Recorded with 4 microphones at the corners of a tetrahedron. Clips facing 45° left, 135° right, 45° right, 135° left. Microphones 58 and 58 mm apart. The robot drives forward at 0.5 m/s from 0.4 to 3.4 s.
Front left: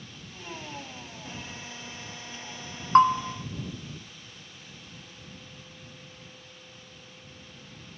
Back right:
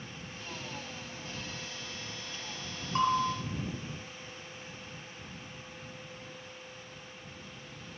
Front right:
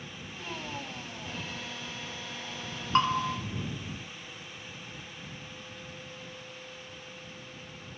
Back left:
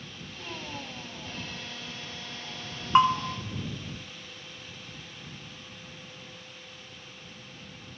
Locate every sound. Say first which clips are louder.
3.0 s a bell: front left 9 dB, back left 5 dB; 60° left, 0.6 m; by 3.2 s 75° left, 0.6 m